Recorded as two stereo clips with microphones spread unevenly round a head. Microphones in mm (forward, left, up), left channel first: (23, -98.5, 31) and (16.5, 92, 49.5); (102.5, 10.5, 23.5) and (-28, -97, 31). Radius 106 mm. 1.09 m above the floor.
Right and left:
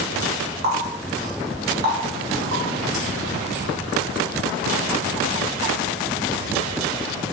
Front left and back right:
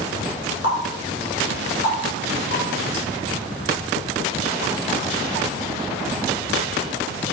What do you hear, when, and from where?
0.6 s a running tap: 65° left, 1.9 m